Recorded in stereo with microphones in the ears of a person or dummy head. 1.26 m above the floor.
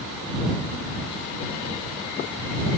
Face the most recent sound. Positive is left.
No sound to turn to.